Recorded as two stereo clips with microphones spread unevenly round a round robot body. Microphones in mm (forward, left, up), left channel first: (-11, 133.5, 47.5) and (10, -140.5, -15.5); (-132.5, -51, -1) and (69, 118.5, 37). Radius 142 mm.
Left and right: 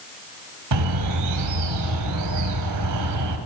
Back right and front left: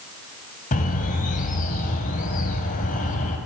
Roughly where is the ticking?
I don't hear ticking.